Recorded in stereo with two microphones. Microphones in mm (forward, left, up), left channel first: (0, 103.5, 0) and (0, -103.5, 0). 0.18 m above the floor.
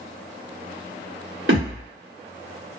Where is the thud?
75° right (ahead or behind), 1.8 m.